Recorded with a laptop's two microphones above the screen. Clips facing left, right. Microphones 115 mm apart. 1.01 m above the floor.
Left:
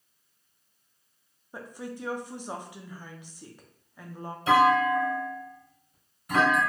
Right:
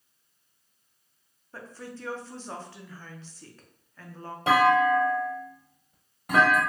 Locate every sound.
1.5 s a woman speaking: 15° left (ahead or behind), 0.6 m
4.5 s a clunk: 70° right (ahead or behind), 1.1 m